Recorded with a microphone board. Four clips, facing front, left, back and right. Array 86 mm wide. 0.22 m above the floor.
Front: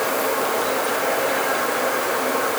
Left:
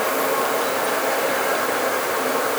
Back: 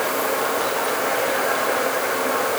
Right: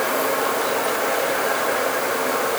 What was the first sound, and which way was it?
Only background noise.